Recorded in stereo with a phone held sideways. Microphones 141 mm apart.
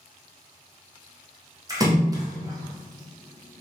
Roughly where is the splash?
Right.